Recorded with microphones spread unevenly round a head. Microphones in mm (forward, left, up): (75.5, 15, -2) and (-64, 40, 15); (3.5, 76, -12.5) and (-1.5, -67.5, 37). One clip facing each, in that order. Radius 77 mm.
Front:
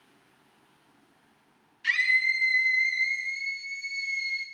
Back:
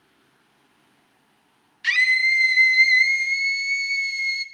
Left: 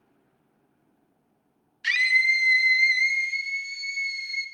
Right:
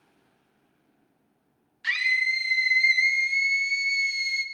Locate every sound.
1.8 s a scream: 150° left, 1.6 m; by 4.5 s 140° right, 1.5 m